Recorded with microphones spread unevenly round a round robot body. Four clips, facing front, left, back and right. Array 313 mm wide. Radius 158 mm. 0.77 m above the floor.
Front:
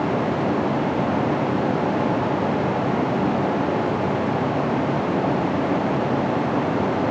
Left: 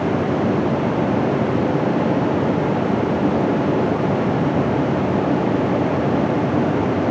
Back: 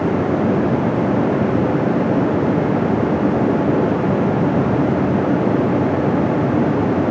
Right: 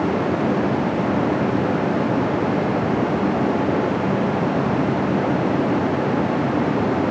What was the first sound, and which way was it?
Only background noise.